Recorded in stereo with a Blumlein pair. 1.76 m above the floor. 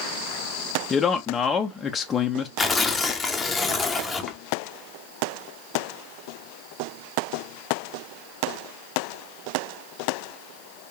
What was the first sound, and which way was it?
A man speaking, 15° left.